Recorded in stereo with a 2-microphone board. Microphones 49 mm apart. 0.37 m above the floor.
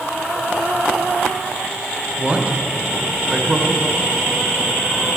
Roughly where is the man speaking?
Right.